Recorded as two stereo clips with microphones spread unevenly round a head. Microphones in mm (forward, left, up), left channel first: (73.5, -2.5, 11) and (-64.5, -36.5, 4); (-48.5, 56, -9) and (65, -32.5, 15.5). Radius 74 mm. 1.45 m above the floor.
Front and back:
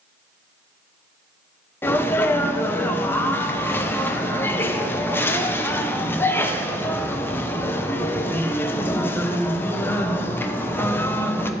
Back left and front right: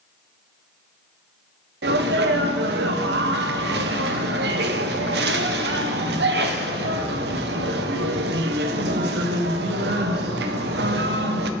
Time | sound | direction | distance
1.8 | a sneeze | 60° right | 1.1 m